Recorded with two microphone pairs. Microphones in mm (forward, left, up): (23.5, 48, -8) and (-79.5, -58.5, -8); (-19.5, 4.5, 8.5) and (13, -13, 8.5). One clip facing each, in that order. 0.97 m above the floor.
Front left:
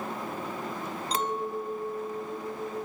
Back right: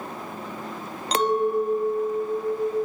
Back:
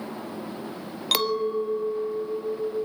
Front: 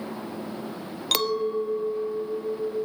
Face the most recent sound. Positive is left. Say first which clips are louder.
# back right 11 dB, back 1 dB
turn(degrees=-125)